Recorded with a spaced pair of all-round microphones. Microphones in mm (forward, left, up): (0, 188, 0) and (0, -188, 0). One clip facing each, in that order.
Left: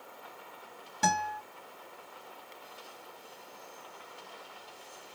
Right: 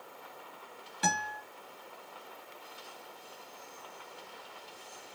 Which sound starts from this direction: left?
A guitar, at 1.0 s.